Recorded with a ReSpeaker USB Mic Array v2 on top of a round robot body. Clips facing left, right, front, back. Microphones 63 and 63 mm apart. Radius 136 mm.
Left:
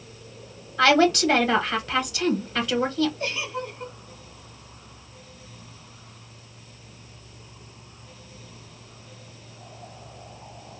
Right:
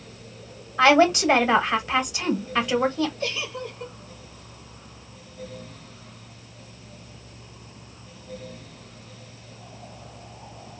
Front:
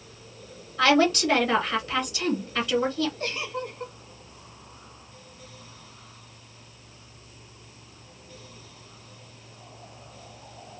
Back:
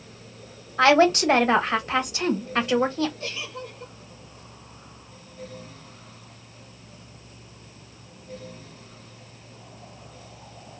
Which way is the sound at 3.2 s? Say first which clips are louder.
Even, front 3 dB; 30° left.